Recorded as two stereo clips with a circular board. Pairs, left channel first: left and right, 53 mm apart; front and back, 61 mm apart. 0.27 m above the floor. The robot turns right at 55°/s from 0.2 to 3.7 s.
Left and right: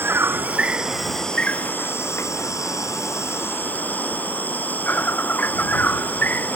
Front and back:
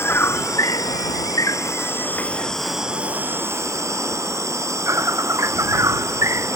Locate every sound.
0.0 s an insect: 45° right; by 6.6 s 145° left